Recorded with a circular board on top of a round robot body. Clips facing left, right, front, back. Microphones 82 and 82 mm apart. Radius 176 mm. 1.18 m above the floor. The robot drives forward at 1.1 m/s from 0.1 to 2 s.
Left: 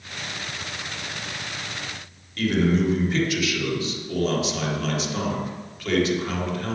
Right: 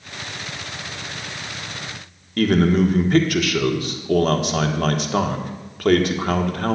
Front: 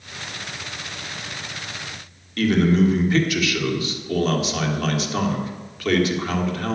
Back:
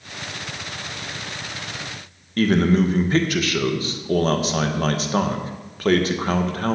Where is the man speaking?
130° right, 1.5 m.